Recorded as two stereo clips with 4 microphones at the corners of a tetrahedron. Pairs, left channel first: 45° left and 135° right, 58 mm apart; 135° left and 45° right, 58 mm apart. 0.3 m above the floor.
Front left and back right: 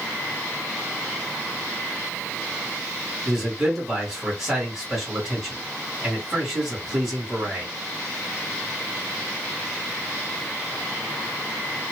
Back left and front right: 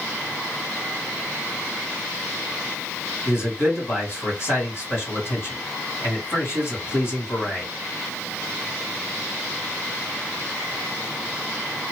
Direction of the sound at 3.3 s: 145° left.